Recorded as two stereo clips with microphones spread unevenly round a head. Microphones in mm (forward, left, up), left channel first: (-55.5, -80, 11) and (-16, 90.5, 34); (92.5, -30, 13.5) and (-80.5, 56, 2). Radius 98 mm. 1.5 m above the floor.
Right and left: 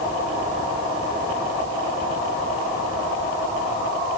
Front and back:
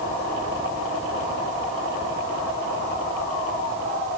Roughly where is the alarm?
No alarm in this recording.